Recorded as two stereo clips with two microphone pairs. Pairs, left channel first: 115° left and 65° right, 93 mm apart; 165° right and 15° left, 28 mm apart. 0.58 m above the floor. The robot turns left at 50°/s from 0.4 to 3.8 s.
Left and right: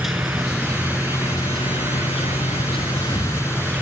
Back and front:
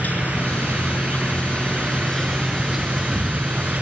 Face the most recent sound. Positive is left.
turn(degrees=35)